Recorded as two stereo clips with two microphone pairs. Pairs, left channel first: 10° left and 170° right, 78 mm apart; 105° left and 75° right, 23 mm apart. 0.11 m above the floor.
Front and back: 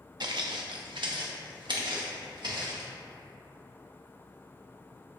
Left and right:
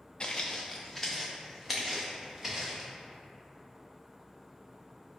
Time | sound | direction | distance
0.2 | footsteps | 165° left | 0.5 m